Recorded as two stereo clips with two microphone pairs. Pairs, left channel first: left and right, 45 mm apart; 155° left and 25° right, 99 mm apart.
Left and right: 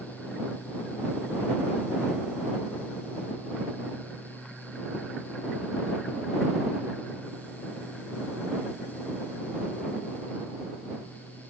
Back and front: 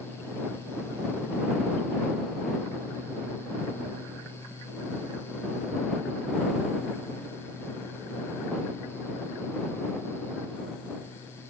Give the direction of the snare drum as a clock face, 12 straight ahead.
I don't hear a snare drum.